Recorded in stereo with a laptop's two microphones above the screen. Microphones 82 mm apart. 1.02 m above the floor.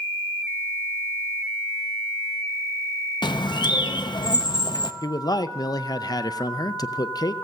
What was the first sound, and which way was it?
A bird, 70° left (ahead or behind).